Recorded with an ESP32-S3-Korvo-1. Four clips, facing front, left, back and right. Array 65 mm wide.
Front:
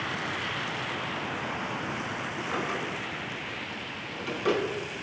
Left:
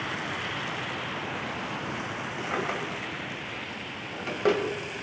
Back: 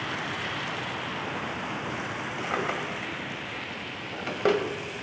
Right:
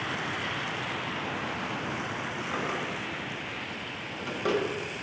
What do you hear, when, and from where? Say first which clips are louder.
2.4 s a drawer: left 3 dB, back 3 dB; 155° left, 1.8 m